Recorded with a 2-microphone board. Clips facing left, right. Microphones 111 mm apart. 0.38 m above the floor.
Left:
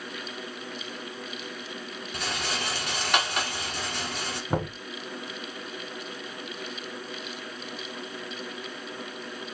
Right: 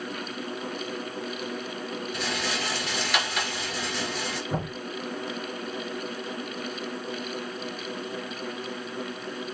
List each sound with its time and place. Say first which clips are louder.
2.1 s a rattle: left 1 dB; 60° left (ahead or behind), 1.7 m
4.5 s knocking: left 5 dB; 60° left (ahead or behind), 3.5 m